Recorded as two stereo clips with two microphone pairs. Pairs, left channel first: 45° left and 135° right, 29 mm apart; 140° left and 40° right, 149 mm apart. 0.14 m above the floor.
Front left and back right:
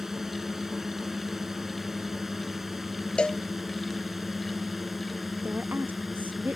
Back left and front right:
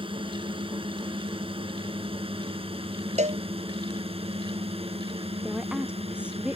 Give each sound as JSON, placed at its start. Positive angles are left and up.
{"t": 0.0, "sound": "a drone", "azimuth_deg": -65}
{"t": 3.2, "sound": "a cowbell", "azimuth_deg": -10}
{"t": 5.4, "sound": "a woman speaking", "azimuth_deg": -120}